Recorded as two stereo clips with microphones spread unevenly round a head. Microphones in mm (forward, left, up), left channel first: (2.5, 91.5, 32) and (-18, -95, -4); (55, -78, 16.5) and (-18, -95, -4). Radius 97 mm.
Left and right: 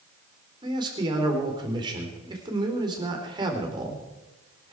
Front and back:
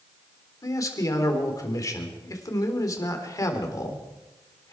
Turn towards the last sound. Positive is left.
turn(degrees=-30)